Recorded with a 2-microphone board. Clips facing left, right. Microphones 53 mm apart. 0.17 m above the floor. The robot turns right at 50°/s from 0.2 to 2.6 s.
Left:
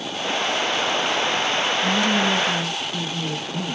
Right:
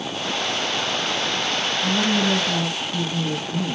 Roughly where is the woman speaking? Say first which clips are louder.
Right 1 dB; behind left.